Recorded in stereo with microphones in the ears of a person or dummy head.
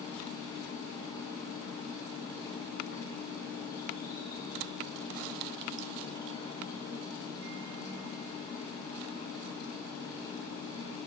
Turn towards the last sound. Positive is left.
turn(degrees=20)  # may be behind; listen again after turning